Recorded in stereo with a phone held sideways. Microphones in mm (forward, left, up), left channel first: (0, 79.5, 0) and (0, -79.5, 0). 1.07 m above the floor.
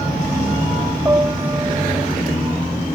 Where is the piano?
20° right (ahead or behind).